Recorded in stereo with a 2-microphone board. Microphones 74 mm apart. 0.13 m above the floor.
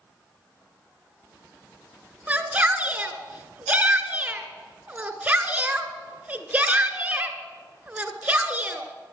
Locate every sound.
2.3 s a shout: 20° right (ahead or behind), 1.5 m